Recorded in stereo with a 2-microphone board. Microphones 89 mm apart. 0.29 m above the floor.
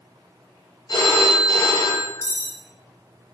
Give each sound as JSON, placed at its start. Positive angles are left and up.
{"t": 0.9, "sound": "a phone ringing", "side_deg": 55, "distance_m": 1.5}
{"t": 2.2, "sound": "cutlery clinking", "side_deg": 30, "distance_m": 0.7}